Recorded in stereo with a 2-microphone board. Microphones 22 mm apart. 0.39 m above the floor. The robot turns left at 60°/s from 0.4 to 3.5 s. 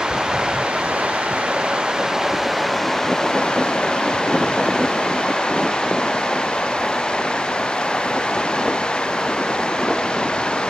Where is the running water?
45° right; by 10.7 s 130° left.